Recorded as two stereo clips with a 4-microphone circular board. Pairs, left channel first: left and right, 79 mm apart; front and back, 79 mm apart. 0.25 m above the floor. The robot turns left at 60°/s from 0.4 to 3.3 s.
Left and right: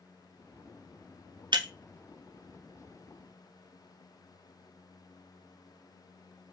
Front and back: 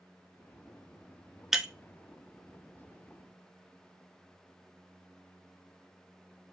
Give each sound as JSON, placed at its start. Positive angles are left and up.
{"t": 1.5, "sound": "breaking glass", "azimuth_deg": -95, "distance_m": 0.6}